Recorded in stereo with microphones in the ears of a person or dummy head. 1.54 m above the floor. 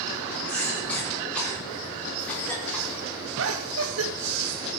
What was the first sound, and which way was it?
A cough, 5° left (ahead or behind).